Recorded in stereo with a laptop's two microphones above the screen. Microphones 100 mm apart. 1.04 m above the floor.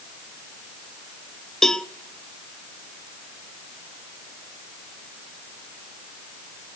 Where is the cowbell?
5° left (ahead or behind), 0.9 m.